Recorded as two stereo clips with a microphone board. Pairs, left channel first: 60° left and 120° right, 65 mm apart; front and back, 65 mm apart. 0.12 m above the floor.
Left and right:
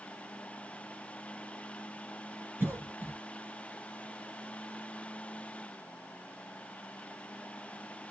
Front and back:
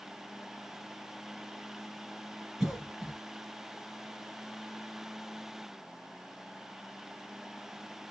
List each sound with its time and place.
2.6 s a cough: 105° right, 1.9 m